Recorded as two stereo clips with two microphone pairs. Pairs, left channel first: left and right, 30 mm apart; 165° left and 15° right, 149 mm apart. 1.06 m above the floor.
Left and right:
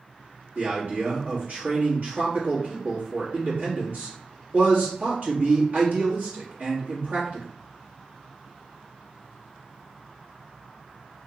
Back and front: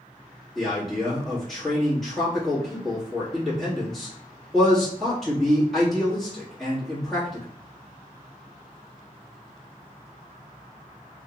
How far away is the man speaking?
About 1.9 m.